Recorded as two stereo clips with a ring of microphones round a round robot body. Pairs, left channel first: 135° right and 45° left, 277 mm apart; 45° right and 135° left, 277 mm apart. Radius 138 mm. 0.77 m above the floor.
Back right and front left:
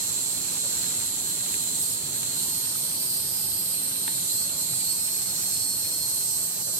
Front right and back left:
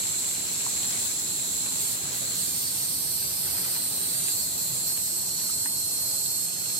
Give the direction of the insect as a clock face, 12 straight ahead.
9 o'clock.